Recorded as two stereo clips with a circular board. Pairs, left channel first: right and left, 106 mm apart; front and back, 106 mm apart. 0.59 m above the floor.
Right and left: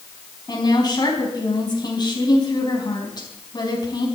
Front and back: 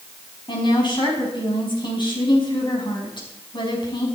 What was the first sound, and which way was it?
A woman speaking, 45° right.